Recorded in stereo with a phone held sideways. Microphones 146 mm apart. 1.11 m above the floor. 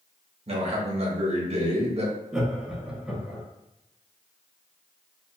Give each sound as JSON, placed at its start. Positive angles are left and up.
{"t": 0.5, "sound": "a man speaking", "side_deg": -45, "distance_m": 0.9}
{"t": 2.3, "sound": "laughter", "side_deg": -5, "distance_m": 0.9}